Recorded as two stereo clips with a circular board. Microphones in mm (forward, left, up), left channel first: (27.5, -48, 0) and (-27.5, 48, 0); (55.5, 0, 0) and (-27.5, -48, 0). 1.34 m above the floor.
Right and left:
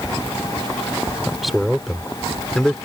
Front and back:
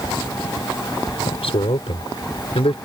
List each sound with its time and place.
1.3 s a man speaking: 35° left; by 2.8 s 25° left